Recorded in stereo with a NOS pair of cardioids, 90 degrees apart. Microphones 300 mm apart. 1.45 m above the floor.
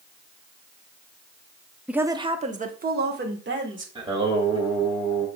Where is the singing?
15° right, 2 m.